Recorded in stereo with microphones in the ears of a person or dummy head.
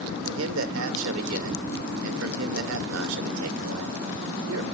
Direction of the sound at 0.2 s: 75° right (ahead or behind).